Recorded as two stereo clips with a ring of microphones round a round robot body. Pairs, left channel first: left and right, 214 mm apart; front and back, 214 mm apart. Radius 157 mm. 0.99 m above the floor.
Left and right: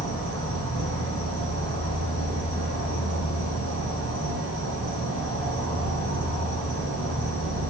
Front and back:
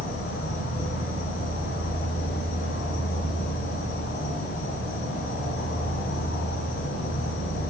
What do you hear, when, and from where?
0.0 s an insect: 65° right, 3 m